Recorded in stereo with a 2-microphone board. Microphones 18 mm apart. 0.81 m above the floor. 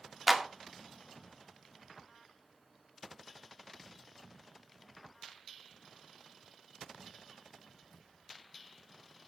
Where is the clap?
Centre (ahead or behind), 1.9 m.